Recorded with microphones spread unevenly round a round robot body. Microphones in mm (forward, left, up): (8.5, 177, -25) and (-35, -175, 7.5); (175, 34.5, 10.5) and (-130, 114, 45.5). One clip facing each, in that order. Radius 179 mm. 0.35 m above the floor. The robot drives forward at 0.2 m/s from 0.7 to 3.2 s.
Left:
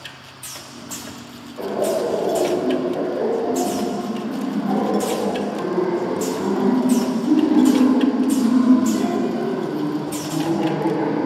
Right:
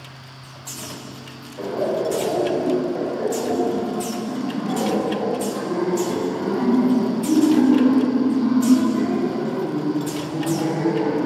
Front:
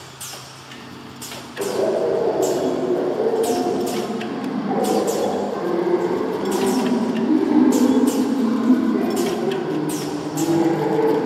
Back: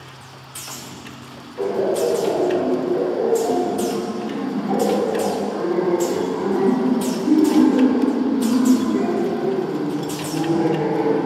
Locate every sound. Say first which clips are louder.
1.6 s laughter: left 1 dB, back 1 dB; 85° left, 1.3 m; by 11.2 s 110° left, 1.3 m